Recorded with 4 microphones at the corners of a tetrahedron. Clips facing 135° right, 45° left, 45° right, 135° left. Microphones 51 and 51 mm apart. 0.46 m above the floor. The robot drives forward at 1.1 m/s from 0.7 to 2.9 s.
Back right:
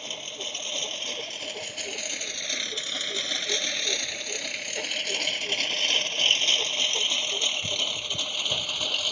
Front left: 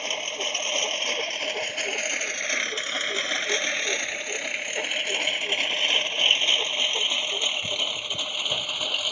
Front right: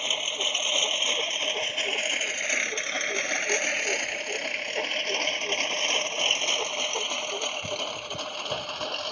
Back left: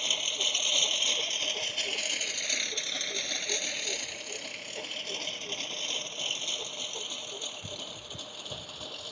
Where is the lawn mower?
15° left; by 9.1 s 30° right.